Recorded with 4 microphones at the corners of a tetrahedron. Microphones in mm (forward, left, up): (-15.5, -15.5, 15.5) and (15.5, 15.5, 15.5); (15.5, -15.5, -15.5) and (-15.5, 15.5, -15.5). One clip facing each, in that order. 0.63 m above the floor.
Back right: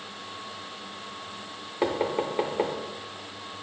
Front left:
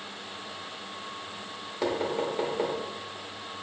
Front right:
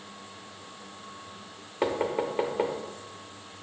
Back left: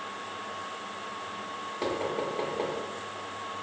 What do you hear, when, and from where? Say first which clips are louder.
1.8 s knocking: back right 2 dB, front right 4 dB; 85° right, 0.6 m